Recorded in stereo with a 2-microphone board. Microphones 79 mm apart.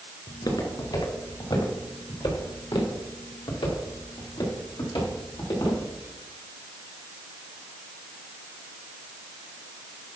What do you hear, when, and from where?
0.3 s footsteps: 60° left (ahead or behind), 3 m; by 5.8 s 70° left (ahead or behind), 4.5 m